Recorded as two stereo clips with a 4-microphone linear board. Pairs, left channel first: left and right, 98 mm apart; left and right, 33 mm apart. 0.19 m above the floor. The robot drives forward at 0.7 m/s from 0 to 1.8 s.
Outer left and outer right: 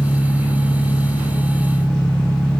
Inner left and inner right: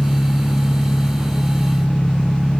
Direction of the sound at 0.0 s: 60° left (ahead or behind).